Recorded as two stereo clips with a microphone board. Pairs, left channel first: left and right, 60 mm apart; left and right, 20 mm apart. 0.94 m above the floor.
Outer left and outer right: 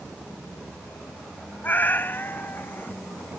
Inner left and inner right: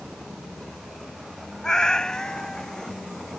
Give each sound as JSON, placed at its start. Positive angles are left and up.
{"t": 1.6, "sound": "a cat meowing", "side_deg": 30}